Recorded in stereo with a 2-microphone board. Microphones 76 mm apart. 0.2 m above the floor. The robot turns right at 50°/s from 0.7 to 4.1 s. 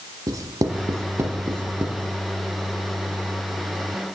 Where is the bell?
No bell in this recording.